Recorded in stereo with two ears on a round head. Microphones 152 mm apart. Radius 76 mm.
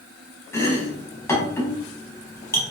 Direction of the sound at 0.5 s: 15° left (ahead or behind).